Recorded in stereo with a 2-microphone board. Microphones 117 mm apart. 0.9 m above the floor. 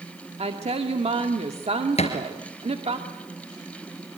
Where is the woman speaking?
60° right (ahead or behind), 2 m.